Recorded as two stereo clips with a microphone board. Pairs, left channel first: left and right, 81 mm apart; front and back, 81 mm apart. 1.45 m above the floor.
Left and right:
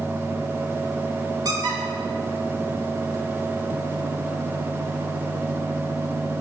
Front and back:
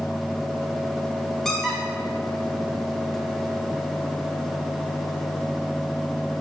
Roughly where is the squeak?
Right.